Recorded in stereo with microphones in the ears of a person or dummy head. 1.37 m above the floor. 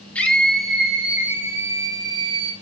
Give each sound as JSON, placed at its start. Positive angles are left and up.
{"t": 0.1, "sound": "a scream", "side_deg": 0, "distance_m": 3.5}